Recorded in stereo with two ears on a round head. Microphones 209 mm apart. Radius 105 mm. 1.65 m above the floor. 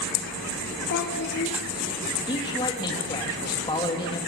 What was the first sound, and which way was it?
A child speaking, 50° left (ahead or behind).